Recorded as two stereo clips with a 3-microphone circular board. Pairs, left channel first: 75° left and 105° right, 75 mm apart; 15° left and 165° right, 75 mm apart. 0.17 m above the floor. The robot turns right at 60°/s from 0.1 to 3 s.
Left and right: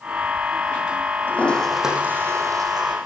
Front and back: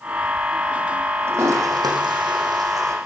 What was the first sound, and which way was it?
A toilet flushing, 140° left.